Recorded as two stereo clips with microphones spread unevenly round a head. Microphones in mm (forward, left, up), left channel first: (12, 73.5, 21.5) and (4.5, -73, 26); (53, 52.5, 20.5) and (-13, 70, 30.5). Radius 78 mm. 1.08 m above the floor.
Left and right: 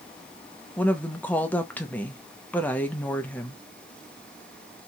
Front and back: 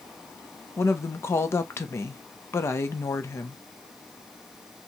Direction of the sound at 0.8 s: 10° left.